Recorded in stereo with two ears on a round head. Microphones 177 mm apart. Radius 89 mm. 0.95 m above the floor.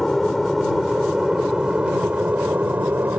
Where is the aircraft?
Centre (ahead or behind); by 3.2 s 10° right (ahead or behind).